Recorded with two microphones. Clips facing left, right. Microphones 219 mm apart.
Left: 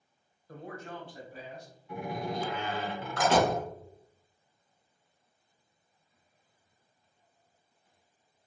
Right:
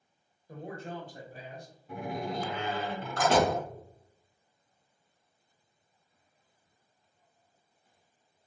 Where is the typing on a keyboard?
No typing on a keyboard in this recording.